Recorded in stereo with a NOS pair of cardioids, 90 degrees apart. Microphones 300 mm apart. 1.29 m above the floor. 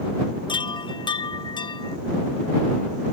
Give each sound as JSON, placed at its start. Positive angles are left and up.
{"t": 0.5, "sound": "a chime", "azimuth_deg": 15}